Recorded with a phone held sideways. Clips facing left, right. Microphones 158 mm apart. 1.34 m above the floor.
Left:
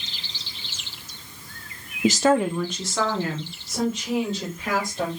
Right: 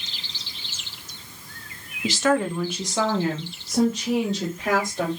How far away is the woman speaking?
About 0.5 m.